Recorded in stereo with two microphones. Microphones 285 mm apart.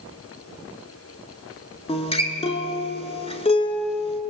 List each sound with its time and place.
1.9 s a guitar: 20° left (ahead or behind), 0.8 m